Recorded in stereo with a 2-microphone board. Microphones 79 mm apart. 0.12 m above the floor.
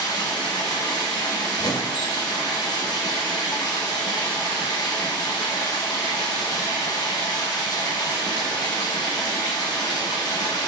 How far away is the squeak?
About 0.6 m.